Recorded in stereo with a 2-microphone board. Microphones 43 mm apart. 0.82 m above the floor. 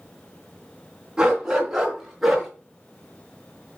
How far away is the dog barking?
About 3 m.